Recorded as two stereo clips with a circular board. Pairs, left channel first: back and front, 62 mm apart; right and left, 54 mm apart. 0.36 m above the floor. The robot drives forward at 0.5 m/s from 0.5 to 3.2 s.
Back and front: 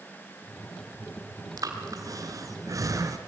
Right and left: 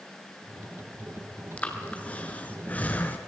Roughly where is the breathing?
Ahead right.